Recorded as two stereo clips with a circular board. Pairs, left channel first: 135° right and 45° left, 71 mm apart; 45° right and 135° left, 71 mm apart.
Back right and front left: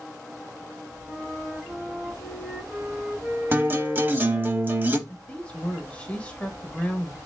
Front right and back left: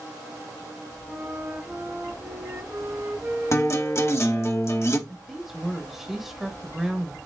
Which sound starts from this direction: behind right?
A woman speaking, at 5.1 s.